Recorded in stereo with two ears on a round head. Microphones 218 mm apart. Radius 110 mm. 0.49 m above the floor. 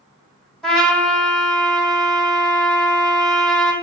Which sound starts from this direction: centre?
A trumpet, at 0.6 s.